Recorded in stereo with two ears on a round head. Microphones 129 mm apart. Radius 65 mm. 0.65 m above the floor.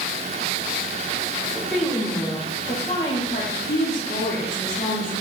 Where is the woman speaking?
5° right (ahead or behind), 1.0 m; by 5.2 s 65° left (ahead or behind), 2.5 m.